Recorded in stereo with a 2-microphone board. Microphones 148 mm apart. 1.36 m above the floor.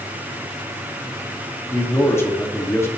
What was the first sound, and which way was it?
A man speaking, 20° left (ahead or behind).